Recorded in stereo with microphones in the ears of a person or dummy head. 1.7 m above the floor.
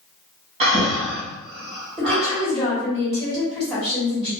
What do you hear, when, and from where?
0.6 s breathing: 35° right (ahead or behind), 1.2 m
2.0 s a woman speaking: 15° left (ahead or behind), 1.8 m